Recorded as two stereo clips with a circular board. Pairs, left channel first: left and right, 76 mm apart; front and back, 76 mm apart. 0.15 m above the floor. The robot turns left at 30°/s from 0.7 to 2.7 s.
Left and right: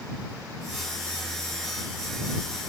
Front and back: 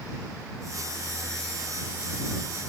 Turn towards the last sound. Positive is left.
No sound to turn to.